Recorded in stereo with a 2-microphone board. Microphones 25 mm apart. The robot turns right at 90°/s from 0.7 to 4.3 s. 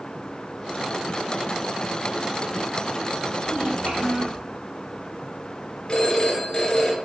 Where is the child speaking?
120° right, 5 m; by 4.4 s 45° right, 5 m.